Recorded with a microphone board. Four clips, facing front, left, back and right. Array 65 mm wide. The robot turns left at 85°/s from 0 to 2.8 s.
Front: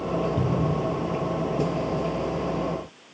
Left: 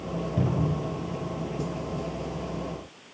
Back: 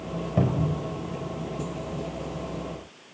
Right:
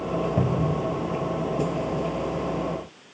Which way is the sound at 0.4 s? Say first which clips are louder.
Right 3 dB, front 1 dB; 150° right.